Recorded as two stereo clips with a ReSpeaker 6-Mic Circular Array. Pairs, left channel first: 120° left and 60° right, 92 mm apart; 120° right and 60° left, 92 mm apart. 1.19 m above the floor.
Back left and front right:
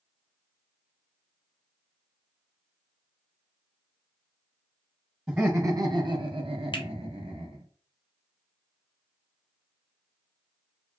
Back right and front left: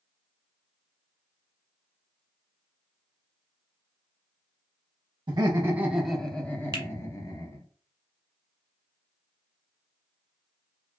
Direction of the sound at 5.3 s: 15° left.